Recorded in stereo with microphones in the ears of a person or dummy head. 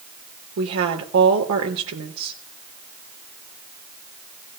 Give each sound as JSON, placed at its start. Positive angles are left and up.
{"t": 0.6, "sound": "a woman speaking", "side_deg": -85, "distance_m": 3.0}